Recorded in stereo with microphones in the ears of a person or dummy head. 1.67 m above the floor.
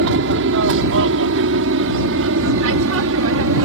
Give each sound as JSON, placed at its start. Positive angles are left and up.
{"t": 0.0, "sound": "an aircraft", "side_deg": -65}